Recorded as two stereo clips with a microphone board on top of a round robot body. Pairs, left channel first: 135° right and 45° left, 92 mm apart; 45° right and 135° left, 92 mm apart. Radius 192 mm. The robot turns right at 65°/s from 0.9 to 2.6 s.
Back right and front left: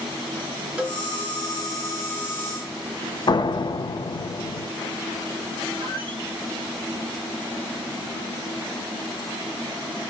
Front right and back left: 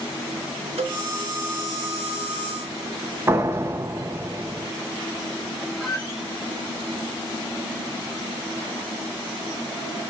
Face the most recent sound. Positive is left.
turn(degrees=50)